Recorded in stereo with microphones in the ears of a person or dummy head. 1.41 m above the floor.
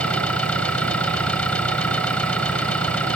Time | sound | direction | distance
0.0 | an engine running | 10° left (ahead or behind) | ?